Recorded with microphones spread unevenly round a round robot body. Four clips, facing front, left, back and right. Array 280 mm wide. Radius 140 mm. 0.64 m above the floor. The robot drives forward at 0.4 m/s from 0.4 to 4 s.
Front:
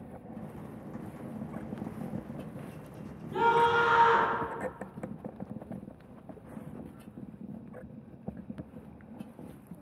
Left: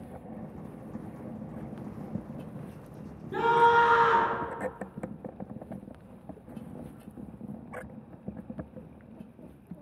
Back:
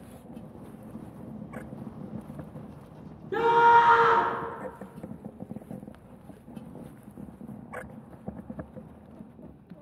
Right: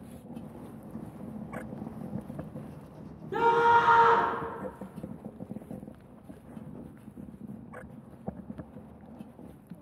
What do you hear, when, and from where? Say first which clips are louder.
3.3 s a scream: even, back 6 dB; 170° right, 3.5 m